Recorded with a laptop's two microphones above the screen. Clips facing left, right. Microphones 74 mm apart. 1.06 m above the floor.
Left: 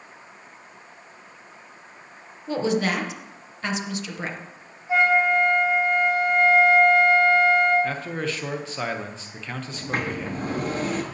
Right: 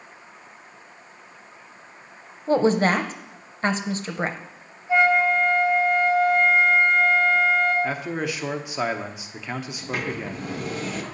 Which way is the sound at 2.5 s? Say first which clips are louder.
Right 5 dB; 35° right (ahead or behind).